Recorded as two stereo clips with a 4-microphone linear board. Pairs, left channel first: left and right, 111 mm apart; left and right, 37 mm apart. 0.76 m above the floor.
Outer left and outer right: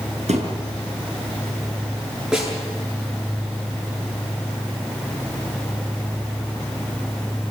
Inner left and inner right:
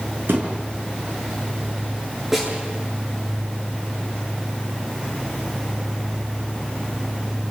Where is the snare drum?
10° right (ahead or behind), 9 m.